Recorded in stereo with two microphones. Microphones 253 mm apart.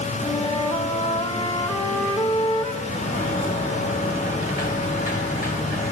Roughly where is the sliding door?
Left.